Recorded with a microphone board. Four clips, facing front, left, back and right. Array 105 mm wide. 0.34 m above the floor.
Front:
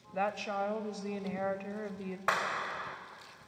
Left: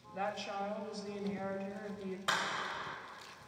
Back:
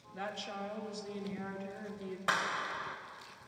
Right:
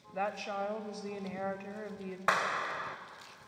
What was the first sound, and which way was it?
A woman speaking, 25° right.